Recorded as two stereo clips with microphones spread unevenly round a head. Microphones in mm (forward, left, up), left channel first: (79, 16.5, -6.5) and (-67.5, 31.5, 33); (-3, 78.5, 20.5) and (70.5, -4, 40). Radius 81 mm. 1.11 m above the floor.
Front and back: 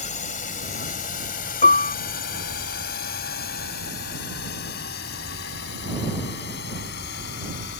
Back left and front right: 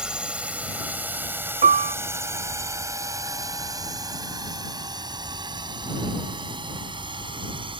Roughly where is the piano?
Ahead right.